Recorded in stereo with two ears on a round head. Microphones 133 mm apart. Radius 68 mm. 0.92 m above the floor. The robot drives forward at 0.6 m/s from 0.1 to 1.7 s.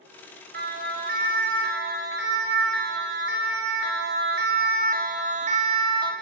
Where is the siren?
75° right (ahead or behind), 6.5 m; by 6.1 s 25° right (ahead or behind), 2.5 m.